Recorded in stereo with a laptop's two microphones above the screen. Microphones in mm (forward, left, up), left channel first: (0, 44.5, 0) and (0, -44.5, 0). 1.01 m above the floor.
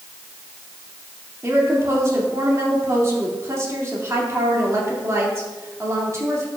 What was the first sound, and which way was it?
A woman speaking, 35° right (ahead or behind).